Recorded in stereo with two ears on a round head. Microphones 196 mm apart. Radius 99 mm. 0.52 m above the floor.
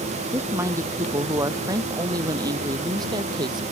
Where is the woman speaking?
15° right (ahead or behind); by 3.6 s 20° right (ahead or behind).